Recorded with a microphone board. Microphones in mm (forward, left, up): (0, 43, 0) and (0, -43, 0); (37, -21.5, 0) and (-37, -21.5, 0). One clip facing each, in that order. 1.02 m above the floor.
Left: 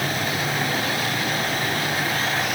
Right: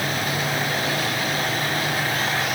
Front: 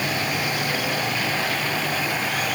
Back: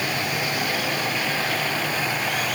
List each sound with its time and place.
Only background noise.